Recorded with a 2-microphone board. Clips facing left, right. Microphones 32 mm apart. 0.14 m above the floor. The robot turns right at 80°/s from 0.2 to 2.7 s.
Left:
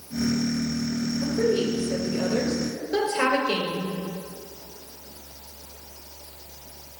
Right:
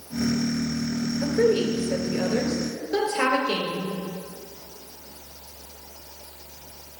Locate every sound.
1.2 s a woman speaking: 115° right, 2 m; by 3.9 s 5° left, 2 m